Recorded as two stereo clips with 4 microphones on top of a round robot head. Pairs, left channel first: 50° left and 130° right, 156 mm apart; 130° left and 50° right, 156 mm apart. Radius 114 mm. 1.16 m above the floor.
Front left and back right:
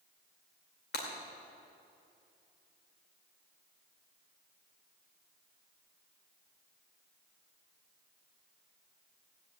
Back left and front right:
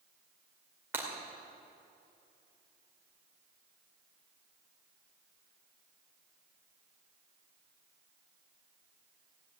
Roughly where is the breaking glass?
Ahead left.